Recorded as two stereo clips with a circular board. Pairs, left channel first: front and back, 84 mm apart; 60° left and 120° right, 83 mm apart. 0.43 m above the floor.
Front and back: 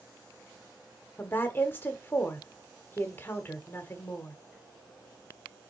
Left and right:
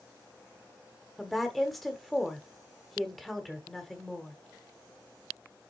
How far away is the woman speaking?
About 1.1 m.